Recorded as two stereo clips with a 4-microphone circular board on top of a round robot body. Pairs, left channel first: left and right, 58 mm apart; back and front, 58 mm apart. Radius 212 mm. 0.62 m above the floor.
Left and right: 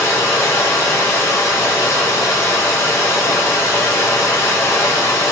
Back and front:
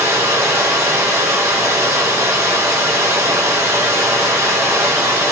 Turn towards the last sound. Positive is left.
turn(degrees=45)